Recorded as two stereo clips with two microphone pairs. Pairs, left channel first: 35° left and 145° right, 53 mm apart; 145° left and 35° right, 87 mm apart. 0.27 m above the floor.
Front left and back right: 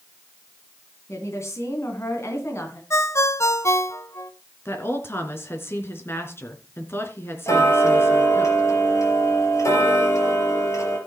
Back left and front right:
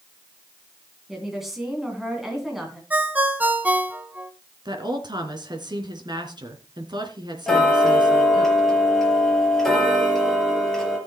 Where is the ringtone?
35° left, 1.0 m.